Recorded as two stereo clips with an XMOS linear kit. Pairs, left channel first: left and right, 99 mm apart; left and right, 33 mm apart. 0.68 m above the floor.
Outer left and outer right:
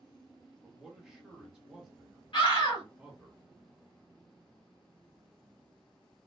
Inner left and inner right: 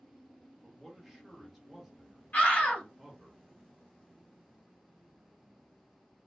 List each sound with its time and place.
0.6 s a man speaking: 5° right (ahead or behind), 1.1 m
2.3 s a scream: 60° left (ahead or behind), 1.7 m